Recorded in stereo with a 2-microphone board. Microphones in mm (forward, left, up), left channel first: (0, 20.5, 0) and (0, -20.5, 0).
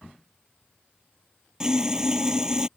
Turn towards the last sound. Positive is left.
turn(degrees=-20)  # may be behind; listen again after turning